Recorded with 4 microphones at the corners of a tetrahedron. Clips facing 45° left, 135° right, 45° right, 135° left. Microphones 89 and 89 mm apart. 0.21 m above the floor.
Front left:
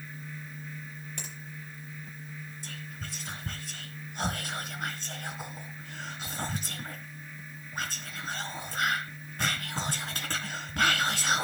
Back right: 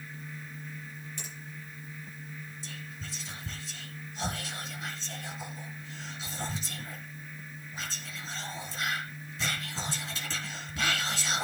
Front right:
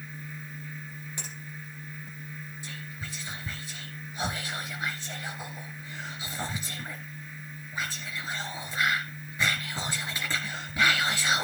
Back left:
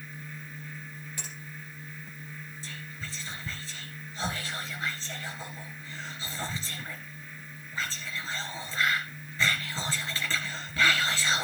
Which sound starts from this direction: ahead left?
Whispering, at 2.6 s.